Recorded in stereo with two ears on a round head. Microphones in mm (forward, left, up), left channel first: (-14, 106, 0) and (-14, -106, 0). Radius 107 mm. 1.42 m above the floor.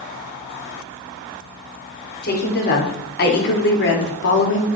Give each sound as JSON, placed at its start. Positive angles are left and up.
{"t": 2.2, "sound": "a woman speaking", "side_deg": 45, "distance_m": 5.0}